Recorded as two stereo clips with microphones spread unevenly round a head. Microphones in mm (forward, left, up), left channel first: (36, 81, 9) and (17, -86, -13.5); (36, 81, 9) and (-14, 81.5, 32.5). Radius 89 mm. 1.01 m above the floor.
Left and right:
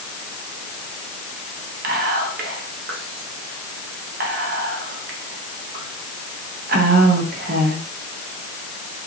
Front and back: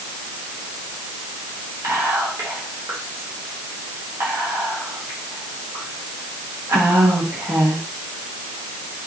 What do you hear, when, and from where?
1.8 s whispering: 115° right, 0.6 m